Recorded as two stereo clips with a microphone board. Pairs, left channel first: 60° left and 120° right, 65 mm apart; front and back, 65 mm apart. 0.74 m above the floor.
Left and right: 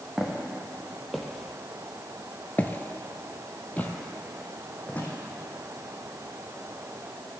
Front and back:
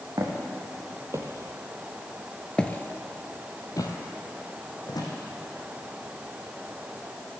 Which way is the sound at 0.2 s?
155° left.